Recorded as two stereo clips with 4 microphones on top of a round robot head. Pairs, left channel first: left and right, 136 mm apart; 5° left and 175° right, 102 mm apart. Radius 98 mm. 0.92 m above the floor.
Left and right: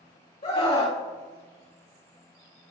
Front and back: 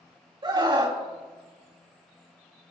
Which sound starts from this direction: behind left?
A scream, at 0.4 s.